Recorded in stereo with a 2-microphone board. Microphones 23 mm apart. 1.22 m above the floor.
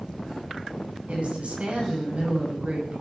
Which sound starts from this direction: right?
A woman speaking, at 1.1 s.